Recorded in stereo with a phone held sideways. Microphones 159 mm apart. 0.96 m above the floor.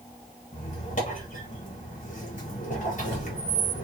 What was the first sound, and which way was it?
A squeak, 55° left (ahead or behind).